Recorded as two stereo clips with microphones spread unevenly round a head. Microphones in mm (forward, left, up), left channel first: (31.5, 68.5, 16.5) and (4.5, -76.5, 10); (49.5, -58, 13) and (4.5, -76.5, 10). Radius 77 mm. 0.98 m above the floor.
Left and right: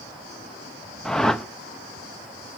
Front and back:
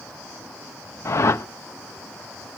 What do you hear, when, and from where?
1.1 s a whoosh: 10° right, 0.7 m